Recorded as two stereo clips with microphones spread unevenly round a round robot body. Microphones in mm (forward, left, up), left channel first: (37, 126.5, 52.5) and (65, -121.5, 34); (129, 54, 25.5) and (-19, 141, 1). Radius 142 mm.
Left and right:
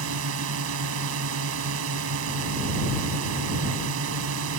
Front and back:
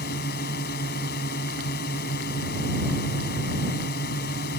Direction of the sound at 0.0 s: 70° right.